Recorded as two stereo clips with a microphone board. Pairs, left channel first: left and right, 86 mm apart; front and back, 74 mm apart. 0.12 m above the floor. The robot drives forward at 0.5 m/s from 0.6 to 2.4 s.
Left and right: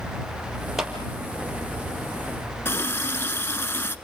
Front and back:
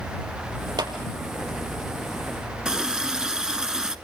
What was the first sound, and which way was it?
A clap, 175° right.